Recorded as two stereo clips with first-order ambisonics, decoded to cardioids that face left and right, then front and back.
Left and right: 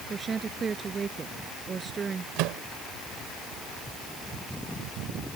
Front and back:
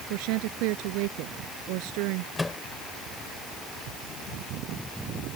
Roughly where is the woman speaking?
Behind.